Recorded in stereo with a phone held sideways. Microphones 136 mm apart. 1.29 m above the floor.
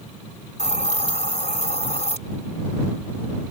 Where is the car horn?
I don't hear a car horn.